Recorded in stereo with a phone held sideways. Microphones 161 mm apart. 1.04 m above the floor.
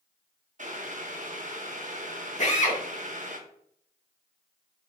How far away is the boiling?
About 0.7 m.